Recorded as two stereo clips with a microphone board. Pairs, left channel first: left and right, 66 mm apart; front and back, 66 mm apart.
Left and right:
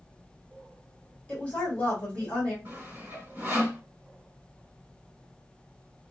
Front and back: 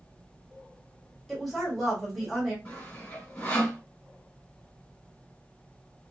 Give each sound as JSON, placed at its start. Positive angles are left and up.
{"t": 1.3, "sound": "a woman speaking", "azimuth_deg": 85, "distance_m": 1.5}
{"t": 2.6, "sound": "sawing", "azimuth_deg": -50, "distance_m": 1.5}